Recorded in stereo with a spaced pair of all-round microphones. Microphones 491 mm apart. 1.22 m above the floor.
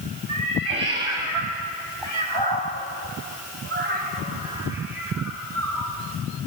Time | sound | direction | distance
0.3 | a cat meowing | 80° right | 3.5 m